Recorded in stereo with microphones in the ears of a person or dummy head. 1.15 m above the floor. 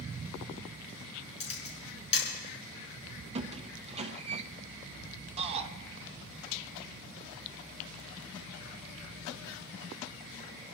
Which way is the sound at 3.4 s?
30° right (ahead or behind).